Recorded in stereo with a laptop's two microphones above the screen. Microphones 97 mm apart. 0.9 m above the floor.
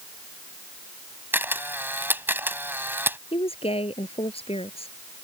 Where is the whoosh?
I don't hear a whoosh.